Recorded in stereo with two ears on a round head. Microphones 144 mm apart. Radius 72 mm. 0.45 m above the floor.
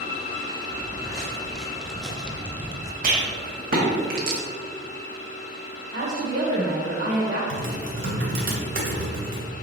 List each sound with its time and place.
0.7 s footsteps: 5° left (ahead or behind), 1.9 m; by 2.9 s 20° right (ahead or behind), 0.7 m
3.0 s a rattle: 60° right (ahead or behind), 2.5 m
5.9 s a woman speaking: 55° right (ahead or behind), 1.5 m
7.5 s typing on a keyboard: 60° right (ahead or behind), 2.5 m